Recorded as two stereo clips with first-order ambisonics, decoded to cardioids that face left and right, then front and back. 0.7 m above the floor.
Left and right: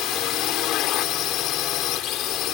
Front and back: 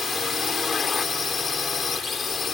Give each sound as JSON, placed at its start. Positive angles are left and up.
{"t": 0.0, "sound": "a drone", "azimuth_deg": 65}